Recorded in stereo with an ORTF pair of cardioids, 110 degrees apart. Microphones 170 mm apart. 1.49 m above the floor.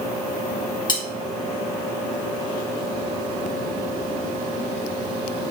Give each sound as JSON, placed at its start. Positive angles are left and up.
{"t": 0.9, "sound": "cutlery clinking", "azimuth_deg": 30, "distance_m": 1.7}